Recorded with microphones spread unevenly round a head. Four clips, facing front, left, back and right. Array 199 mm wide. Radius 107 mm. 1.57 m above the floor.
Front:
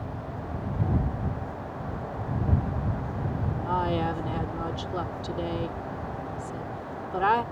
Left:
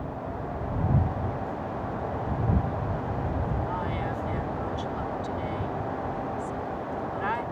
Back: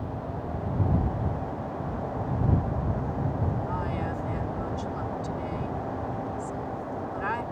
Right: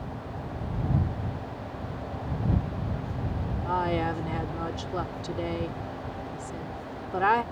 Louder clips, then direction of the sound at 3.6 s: Right 3 dB, front 4 dB; 45° right.